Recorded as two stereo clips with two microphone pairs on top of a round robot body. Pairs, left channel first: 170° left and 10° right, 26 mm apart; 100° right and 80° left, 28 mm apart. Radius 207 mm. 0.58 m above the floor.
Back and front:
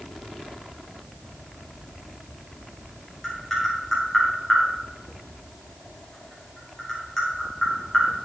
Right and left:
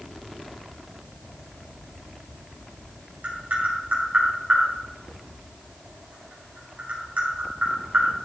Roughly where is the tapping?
Left.